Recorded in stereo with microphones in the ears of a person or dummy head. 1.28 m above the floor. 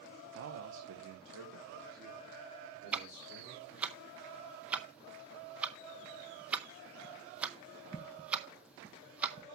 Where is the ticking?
5° right (ahead or behind), 0.6 m.